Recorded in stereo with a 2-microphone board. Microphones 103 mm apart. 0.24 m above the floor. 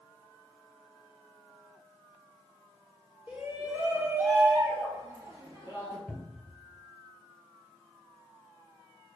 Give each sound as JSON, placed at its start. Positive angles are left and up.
{"t": 3.3, "sound": "a shout", "side_deg": -15, "distance_m": 3.0}
{"t": 6.1, "sound": "a cupboard door", "side_deg": -10, "distance_m": 2.5}